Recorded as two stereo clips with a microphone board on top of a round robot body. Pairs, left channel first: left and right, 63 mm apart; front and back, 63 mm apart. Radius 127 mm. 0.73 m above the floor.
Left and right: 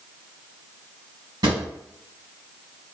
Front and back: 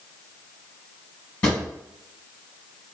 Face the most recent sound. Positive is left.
turn(degrees=-75)